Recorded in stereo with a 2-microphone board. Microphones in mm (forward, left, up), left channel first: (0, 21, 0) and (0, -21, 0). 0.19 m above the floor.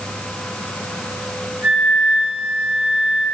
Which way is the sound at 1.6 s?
50° right (ahead or behind).